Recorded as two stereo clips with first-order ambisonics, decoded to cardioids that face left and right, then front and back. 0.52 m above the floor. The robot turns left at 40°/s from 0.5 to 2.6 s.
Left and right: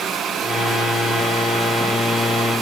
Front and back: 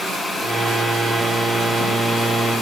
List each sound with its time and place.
Only background noise.